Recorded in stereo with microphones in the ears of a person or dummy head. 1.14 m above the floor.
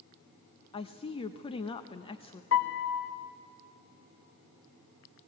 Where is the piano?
70° left (ahead or behind), 1.0 m.